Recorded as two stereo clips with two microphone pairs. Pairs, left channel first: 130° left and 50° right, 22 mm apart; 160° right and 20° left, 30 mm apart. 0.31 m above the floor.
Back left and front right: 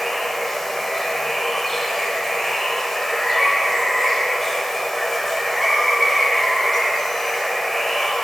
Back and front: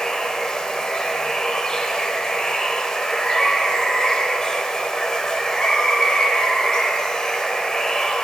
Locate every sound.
0.0 s running water: 160° right, 0.8 m